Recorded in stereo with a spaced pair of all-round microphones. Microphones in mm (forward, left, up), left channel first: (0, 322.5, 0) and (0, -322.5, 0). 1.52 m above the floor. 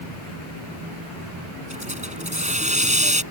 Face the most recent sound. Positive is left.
turn(degrees=-10)  # may be behind; listen again after turning